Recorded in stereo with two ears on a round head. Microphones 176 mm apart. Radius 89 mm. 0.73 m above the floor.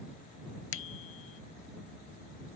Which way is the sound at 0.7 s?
70° left (ahead or behind).